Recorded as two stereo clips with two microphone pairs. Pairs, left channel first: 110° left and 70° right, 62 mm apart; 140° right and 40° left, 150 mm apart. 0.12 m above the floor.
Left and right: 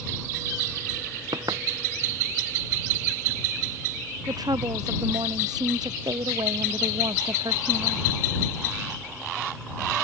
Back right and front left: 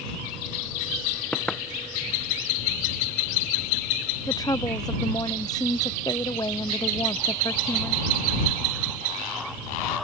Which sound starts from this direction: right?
A woman speaking, at 4.3 s.